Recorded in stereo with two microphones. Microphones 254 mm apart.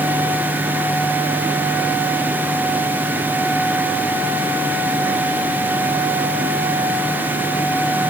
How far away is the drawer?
I don't hear a drawer.